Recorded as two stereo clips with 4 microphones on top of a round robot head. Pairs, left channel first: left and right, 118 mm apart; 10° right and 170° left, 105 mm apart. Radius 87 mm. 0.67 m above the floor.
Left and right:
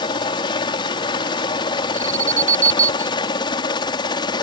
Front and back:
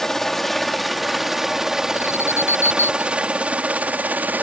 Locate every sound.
0.0 s a helicopter: 70° left; by 4.4 s 105° left
1.9 s an alarm: 90° right